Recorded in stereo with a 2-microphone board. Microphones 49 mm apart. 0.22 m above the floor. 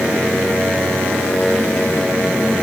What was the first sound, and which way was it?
Only background noise.